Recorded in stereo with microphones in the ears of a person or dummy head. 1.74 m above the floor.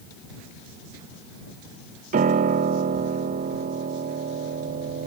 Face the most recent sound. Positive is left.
turn(degrees=-45)  # may be behind; listen again after turning